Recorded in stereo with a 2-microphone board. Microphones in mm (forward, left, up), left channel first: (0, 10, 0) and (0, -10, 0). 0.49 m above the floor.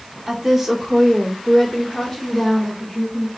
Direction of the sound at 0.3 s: 15° right (ahead or behind).